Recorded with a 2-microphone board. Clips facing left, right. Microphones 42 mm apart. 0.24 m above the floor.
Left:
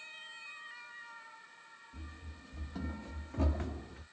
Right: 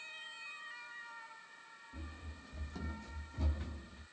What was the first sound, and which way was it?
Running footsteps, 20° right (ahead or behind).